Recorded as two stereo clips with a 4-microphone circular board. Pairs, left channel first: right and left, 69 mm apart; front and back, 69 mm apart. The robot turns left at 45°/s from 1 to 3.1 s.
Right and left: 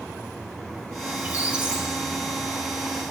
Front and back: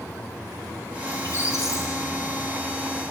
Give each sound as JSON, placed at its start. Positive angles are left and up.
{"t": 1.1, "sound": "a squeak", "azimuth_deg": 40, "distance_m": 1.4}